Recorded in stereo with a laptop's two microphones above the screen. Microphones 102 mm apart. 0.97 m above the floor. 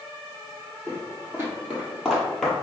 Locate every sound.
0.9 s footsteps: 25° right (ahead or behind), 1.9 m; by 2.5 s 5° left (ahead or behind), 1.3 m